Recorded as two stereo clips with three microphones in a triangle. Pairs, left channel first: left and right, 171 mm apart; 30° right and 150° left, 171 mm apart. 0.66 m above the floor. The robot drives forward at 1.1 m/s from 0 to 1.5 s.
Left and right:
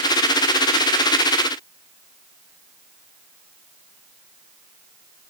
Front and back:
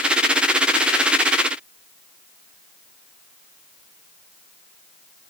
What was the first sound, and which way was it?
Only background noise.